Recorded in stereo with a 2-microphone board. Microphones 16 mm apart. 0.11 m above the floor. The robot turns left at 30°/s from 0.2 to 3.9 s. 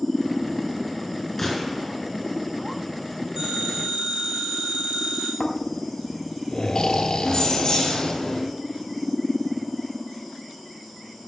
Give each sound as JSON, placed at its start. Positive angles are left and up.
{"t": 1.4, "sound": "a gunshot", "side_deg": 10, "distance_m": 3.5}
{"t": 3.4, "sound": "a phone ringing", "side_deg": -65, "distance_m": 5.0}
{"t": 5.4, "sound": "snoring", "side_deg": 50, "distance_m": 1.1}
{"t": 7.2, "sound": "keys jangling", "side_deg": 35, "distance_m": 3.5}